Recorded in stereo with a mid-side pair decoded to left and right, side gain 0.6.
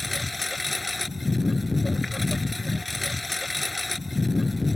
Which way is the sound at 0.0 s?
10° left.